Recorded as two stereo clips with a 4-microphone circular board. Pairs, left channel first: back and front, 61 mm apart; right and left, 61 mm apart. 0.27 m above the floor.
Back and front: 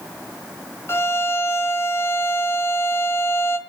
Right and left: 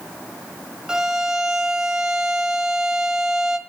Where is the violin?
165° left, 1.5 m.